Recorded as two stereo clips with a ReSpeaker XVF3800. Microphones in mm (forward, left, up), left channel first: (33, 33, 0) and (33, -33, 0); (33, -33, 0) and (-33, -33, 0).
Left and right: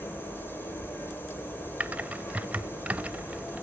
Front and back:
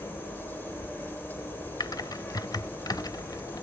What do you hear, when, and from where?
0.0 s an insect: 50° left, 2.5 m
1.8 s typing on a keyboard: 20° right, 0.7 m